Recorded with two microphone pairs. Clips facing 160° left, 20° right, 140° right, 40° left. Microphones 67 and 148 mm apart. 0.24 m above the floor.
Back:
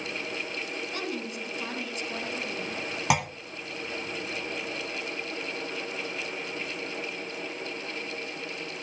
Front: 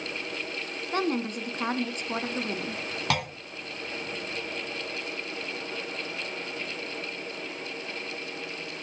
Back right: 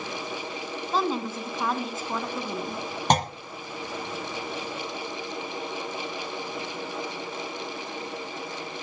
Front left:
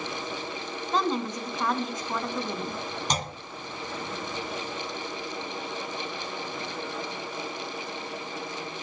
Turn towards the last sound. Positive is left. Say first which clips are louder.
# back 3 dB, back right 10 dB
turn(degrees=-125)